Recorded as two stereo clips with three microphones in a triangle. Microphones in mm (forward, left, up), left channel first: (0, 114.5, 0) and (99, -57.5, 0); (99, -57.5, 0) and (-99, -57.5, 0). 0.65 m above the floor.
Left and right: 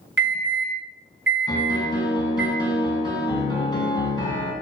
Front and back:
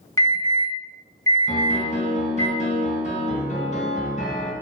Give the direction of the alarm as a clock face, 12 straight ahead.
2 o'clock.